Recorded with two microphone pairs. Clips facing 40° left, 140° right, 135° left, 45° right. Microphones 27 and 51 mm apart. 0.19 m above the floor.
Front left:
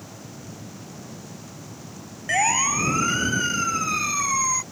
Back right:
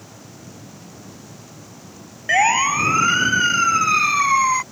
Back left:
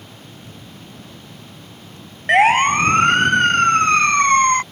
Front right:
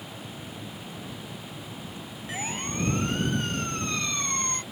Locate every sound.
2.3 s a siren: 155° left; by 4.6 s 165° left